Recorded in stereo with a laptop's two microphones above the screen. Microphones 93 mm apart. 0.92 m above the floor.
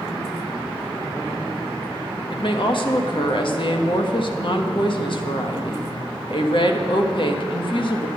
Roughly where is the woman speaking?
Left.